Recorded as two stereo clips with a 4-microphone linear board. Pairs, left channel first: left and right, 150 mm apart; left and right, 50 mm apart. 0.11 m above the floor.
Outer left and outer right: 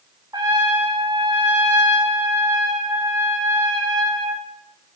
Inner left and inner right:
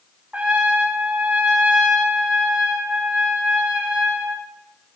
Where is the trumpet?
30° right (ahead or behind), 5.5 m.